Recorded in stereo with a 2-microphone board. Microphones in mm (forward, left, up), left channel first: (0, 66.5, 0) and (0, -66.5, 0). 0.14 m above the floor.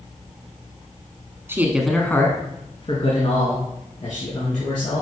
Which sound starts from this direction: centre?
A man speaking, at 1.5 s.